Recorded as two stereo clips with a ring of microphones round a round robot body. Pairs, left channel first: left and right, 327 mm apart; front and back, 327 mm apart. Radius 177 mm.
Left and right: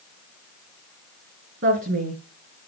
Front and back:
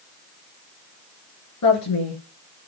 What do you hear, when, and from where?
1.6 s a woman speaking: 35° right, 5 m